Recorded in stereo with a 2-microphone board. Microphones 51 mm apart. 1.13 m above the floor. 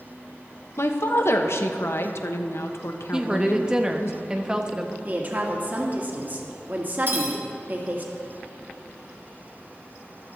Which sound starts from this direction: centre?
A woman speaking, at 3.1 s.